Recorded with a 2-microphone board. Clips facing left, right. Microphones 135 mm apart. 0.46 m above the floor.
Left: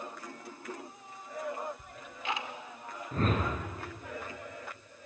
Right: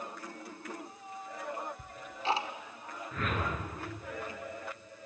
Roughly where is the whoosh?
Left.